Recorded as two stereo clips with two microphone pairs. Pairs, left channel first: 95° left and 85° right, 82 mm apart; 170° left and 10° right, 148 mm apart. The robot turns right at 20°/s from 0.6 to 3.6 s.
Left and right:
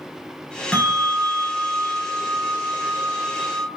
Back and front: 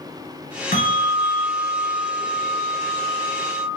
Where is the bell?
170° left, 1.5 m; by 3.7 s 130° right, 1.5 m.